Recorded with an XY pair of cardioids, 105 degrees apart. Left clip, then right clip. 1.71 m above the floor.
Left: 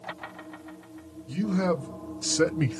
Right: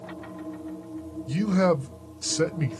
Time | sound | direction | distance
1.3 | a man speaking | 55° right | 0.7 m